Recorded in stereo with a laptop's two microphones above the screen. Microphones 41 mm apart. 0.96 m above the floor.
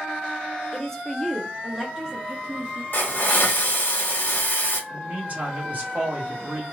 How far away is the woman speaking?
About 0.8 m.